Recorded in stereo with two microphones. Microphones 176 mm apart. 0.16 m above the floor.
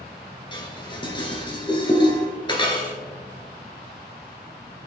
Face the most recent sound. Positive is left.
turn(degrees=25)  # may be behind; listen again after turning